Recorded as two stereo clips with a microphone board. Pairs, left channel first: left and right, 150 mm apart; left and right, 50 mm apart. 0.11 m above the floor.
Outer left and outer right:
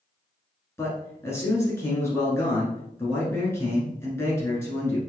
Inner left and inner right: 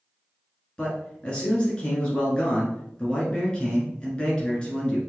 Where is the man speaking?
20° left (ahead or behind), 1.2 m.